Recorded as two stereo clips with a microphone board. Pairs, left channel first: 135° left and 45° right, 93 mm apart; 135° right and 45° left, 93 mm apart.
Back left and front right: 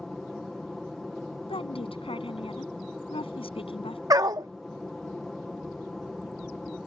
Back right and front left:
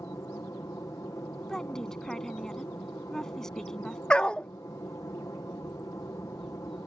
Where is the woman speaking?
140° left.